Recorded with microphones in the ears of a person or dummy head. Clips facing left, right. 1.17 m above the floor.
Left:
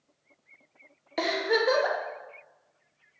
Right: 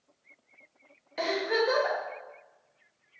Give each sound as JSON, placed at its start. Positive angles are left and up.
{"t": 1.2, "sound": "a giggle", "side_deg": 55, "distance_m": 0.6}